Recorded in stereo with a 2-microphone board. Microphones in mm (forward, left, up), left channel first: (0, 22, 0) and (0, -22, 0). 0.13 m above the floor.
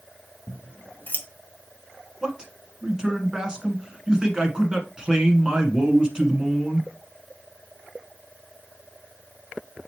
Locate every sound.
0.5 s scissors: 40° left (ahead or behind), 1.2 m
2.2 s a man speaking: 20° right (ahead or behind), 1.2 m